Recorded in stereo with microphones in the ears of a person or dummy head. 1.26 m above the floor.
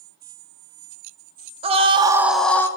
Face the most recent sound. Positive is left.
turn(degrees=10)  # may be behind; listen again after turning